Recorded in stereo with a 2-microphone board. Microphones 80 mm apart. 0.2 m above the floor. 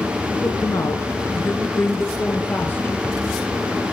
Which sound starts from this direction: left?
A woman speaking, at 0.4 s.